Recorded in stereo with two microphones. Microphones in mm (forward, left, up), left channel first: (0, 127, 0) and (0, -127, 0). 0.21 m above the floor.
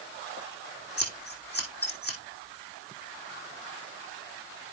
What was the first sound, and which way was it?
Scissors, 40° left (ahead or behind).